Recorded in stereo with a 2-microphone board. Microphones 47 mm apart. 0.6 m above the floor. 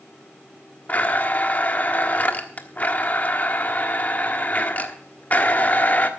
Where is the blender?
35° left (ahead or behind), 1.3 m.